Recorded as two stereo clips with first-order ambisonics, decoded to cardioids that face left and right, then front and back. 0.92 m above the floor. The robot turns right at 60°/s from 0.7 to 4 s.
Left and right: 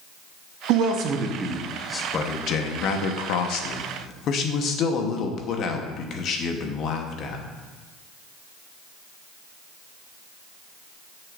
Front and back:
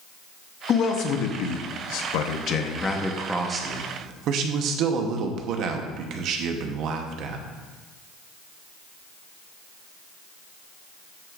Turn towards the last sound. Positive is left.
turn(degrees=140)